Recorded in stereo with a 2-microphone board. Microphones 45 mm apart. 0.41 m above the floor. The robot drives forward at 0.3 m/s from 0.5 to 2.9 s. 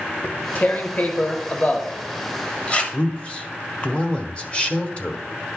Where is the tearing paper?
45° left (ahead or behind), 0.9 m; by 2.8 s 30° left (ahead or behind), 1.3 m.